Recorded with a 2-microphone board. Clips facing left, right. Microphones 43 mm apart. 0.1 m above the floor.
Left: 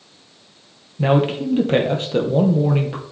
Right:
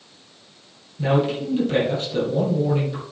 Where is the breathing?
I don't hear breathing.